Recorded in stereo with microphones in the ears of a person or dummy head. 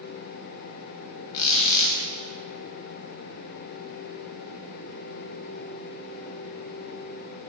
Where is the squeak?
45° left (ahead or behind), 1.5 m.